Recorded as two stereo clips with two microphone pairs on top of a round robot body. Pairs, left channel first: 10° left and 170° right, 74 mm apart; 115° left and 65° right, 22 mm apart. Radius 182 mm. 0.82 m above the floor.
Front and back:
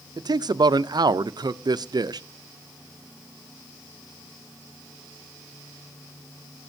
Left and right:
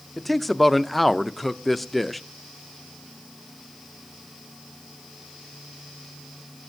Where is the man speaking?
155° right, 0.6 m.